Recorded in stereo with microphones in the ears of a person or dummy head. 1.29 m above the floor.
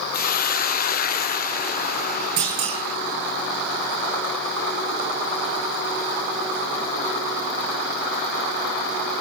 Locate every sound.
0.1 s a hiss: 50° left (ahead or behind), 0.6 m
2.4 s a clunk: 45° right (ahead or behind), 5.5 m